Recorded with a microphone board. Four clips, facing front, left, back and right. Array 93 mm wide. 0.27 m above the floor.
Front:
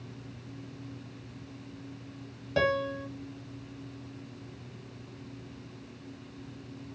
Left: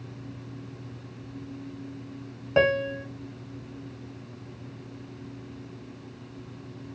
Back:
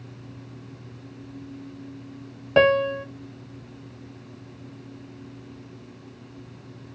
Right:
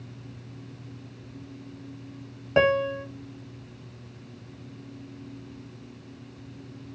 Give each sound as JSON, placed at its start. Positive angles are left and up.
{"t": 2.6, "sound": "a piano", "azimuth_deg": -175, "distance_m": 0.9}